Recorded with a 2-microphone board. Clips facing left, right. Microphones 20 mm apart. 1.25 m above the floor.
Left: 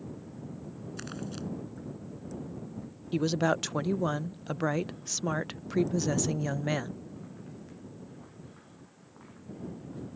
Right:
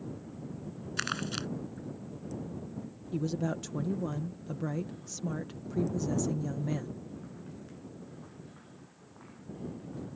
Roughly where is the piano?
I don't hear a piano.